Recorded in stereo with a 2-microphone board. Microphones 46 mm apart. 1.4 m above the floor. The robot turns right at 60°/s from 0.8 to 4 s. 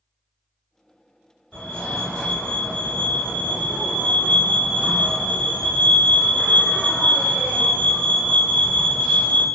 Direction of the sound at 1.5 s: 25° left (ahead or behind).